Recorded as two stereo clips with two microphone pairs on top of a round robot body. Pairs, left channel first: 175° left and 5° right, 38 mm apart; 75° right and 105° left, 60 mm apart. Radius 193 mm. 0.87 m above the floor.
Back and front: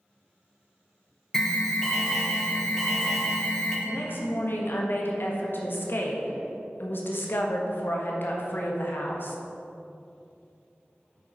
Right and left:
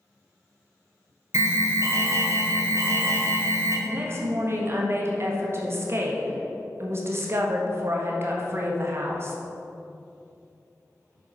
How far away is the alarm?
About 1.7 m.